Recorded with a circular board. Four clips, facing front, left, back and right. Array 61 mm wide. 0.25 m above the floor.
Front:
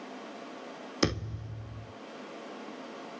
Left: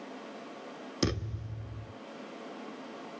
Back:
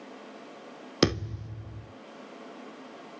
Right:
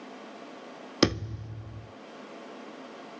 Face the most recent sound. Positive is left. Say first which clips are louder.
# right 7 dB, back 5 dB
turn(degrees=-135)